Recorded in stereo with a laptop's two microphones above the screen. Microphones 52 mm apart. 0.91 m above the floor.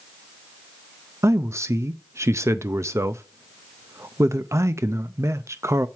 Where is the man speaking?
65° right (ahead or behind), 0.5 m.